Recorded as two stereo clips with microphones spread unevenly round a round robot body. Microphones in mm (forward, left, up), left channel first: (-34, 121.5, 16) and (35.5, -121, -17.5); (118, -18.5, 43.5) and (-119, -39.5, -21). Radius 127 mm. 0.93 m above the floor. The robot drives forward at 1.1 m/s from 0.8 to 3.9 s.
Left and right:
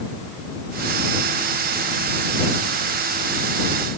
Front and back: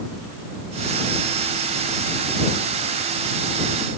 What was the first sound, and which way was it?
Only background noise.